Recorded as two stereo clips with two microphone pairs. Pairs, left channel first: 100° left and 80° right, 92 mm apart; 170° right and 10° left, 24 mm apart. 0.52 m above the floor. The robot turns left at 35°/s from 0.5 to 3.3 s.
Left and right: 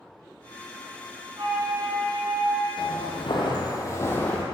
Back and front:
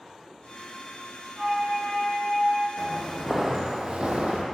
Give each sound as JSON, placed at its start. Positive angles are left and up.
{"t": 1.4, "sound": "a flute", "azimuth_deg": -55, "distance_m": 2.5}
{"t": 2.8, "sound": "footsteps", "azimuth_deg": 115, "distance_m": 1.6}